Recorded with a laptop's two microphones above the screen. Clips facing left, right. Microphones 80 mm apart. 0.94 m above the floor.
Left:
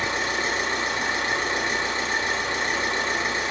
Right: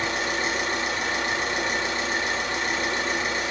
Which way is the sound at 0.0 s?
35° left (ahead or behind).